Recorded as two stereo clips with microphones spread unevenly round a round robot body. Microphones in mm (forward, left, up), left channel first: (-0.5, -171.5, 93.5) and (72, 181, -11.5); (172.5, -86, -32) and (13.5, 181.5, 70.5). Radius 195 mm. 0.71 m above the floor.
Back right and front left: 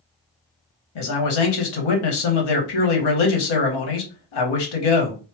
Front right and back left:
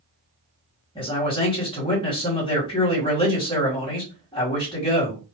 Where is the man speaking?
130° right, 1.2 m.